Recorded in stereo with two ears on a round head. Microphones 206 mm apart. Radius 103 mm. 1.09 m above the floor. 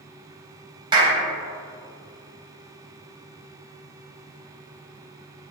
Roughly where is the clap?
Centre.